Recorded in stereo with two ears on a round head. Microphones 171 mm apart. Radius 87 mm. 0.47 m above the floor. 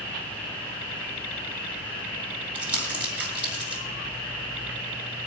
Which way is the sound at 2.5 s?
5° right (ahead or behind).